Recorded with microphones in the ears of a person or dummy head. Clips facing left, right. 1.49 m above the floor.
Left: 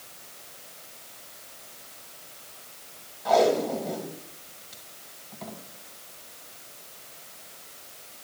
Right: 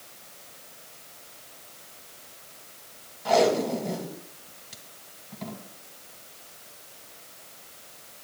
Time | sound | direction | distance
3.2 | tape being pulled | 10° right (ahead or behind) | 1.7 m